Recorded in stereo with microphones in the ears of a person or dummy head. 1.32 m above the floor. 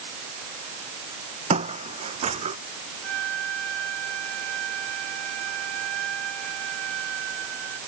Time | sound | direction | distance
1.5 | footsteps | 45° right (ahead or behind) | ?
3.0 | a flute | 80° right | ?